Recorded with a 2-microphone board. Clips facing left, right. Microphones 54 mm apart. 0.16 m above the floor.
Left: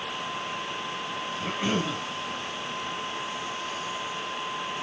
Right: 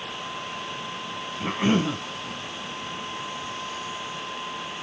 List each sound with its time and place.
1.4 s a cough: 25° right (ahead or behind), 1.4 m